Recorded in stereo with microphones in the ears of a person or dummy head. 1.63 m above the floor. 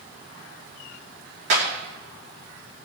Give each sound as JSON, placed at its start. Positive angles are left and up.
{"t": 1.5, "sound": "a clap", "side_deg": -55, "distance_m": 3.0}